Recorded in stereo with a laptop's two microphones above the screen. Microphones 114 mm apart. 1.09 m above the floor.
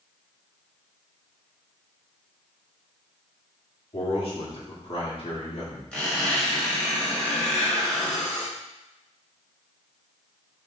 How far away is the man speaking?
About 2.5 m.